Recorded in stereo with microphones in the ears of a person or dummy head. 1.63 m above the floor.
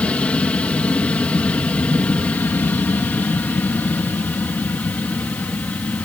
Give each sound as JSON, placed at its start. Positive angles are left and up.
{"t": 0.0, "sound": "an aircraft", "side_deg": 10}